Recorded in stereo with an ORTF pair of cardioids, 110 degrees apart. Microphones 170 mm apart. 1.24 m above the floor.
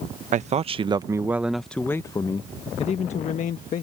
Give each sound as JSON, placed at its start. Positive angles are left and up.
{"t": 0.3, "sound": "a man speaking", "azimuth_deg": -45}